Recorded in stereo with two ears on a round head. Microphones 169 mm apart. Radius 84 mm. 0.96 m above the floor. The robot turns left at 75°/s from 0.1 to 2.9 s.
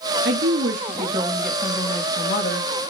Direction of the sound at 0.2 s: 80° right.